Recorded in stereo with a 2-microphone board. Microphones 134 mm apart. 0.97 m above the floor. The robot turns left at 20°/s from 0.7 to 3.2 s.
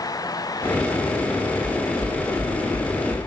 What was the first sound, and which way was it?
Knocking, 25° left (ahead or behind).